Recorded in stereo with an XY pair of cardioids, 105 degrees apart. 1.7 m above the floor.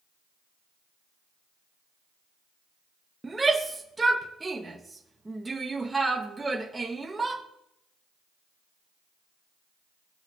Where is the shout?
15° right, 2.5 m.